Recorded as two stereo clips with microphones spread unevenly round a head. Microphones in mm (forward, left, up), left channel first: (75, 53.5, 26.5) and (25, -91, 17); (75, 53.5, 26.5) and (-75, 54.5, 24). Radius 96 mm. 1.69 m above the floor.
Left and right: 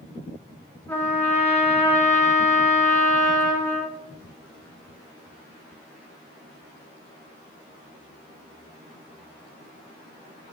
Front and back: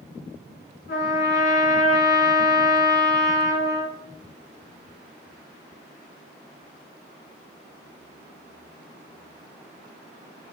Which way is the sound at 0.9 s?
5° right.